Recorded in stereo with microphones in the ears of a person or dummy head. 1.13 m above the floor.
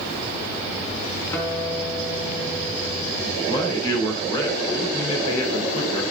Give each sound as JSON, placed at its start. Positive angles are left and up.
{"t": 1.3, "sound": "a guitar", "side_deg": 15, "distance_m": 4.0}
{"t": 3.4, "sound": "a man speaking", "side_deg": 25, "distance_m": 4.5}